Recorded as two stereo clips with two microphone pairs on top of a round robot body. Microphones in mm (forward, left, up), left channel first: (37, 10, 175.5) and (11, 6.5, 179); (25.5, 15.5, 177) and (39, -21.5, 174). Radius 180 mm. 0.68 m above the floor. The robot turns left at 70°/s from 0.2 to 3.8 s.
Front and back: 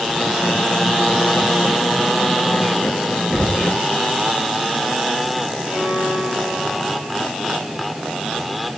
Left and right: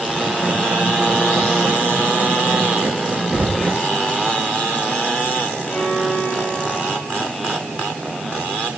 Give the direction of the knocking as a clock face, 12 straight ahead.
6 o'clock.